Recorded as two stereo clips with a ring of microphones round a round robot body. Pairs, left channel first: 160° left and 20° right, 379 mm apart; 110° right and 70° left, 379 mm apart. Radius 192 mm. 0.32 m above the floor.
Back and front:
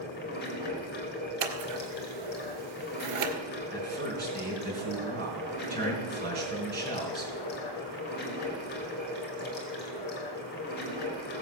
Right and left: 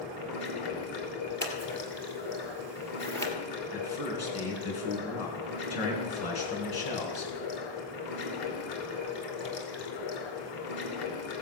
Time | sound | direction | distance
0.0 | running water | 140° right | 2.5 m
1.4 | scissors | 30° right | 1.6 m
3.7 | a man speaking | 85° right | 4.5 m